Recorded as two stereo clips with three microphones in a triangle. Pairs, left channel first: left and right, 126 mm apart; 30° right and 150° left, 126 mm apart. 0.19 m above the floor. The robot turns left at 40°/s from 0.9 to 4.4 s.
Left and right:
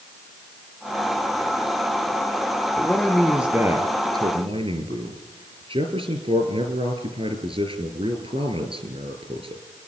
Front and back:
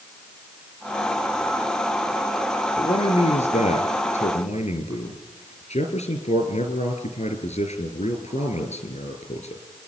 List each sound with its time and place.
2.8 s a man speaking: 15° left, 4 m; by 9.6 s 55° right, 4 m